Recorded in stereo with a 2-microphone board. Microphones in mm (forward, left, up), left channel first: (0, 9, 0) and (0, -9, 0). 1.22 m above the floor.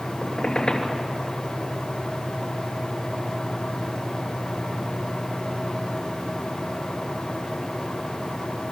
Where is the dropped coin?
No dropped coin in this recording.